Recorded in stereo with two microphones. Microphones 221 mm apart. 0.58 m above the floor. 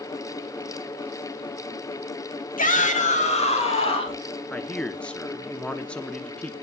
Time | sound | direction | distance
2.6 | a shout | 35° left (ahead or behind) | 1.5 m
4.5 | a man speaking | 5° left (ahead or behind) | 0.9 m